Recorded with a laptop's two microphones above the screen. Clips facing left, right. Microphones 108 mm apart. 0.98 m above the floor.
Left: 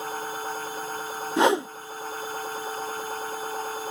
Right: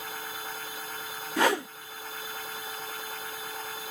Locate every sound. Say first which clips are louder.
0.0 s a machine running: left 7 dB; 35° left (ahead or behind)
1.4 s a whoosh: left 5 dB; 20° left (ahead or behind)